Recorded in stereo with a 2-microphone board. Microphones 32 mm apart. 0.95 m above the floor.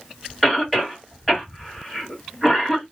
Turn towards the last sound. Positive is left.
turn(degrees=5)  # may be behind; listen again after turning